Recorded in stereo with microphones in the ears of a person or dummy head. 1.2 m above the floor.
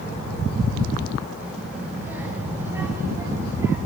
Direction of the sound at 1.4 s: 5° right (ahead or behind).